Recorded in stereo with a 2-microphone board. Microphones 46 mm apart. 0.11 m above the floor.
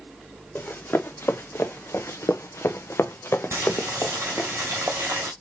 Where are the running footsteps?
45° left (ahead or behind), 1.5 m; by 4.5 s 30° left (ahead or behind), 1.3 m.